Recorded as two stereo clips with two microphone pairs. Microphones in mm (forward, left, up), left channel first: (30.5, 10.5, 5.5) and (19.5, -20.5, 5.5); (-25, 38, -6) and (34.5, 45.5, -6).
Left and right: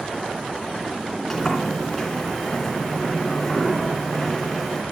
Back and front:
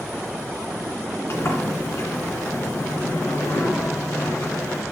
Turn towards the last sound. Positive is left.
turn(degrees=150)